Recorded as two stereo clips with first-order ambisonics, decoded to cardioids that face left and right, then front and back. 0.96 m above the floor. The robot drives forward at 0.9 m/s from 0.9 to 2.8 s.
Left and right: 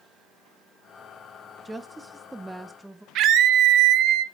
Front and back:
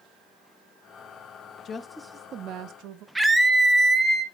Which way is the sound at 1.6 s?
15° right.